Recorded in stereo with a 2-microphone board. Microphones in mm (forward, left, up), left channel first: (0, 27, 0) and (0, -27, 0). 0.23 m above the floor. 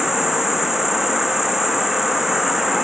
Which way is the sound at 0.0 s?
5° right (ahead or behind).